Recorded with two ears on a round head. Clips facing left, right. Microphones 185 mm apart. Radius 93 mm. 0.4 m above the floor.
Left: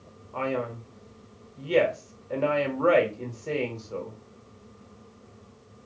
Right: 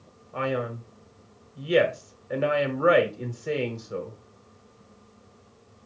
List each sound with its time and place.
0.3 s a man speaking: 15° right (ahead or behind), 1.2 m